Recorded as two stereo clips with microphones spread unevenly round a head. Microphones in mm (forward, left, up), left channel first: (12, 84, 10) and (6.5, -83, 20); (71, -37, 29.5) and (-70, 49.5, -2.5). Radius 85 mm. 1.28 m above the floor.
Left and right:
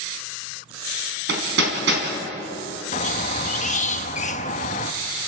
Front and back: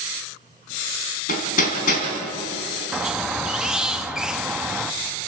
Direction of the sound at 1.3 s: 70° right.